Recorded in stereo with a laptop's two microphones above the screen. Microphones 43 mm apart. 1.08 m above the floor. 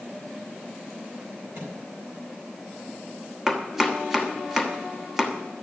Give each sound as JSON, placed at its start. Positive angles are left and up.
{"t": 1.5, "sound": "a microwave", "side_deg": -60, "distance_m": 4.5}
{"t": 3.5, "sound": "chopping", "side_deg": -5, "distance_m": 1.0}